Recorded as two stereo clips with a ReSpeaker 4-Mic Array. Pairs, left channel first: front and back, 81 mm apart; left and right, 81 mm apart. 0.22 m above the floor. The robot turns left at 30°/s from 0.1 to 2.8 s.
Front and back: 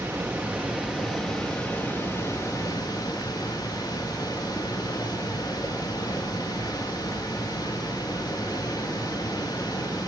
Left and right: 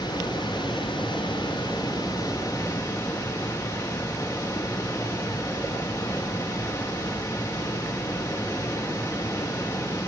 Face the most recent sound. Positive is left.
turn(degrees=40)